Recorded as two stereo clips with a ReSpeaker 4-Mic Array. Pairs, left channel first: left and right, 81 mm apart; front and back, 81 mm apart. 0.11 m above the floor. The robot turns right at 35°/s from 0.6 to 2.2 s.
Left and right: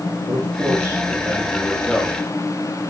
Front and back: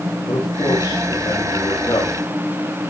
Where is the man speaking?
35° right, 7.5 m; by 2.2 s 15° left, 7.5 m.